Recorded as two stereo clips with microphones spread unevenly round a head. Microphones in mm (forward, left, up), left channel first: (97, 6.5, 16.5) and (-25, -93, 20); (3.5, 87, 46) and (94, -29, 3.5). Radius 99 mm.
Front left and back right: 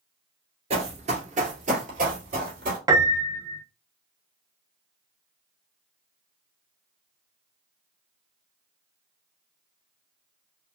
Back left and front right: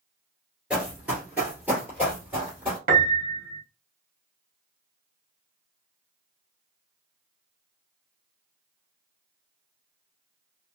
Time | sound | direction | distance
0.7 | running footsteps | 155° right | 2 m
2.9 | a piano | 85° right | 0.7 m